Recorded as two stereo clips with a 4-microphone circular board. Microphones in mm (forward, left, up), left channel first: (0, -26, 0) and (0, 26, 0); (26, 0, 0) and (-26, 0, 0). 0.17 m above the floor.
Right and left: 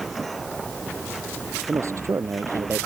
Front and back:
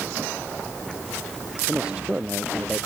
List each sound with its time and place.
1.7 s a man speaking: 110° left; by 2.9 s 105° left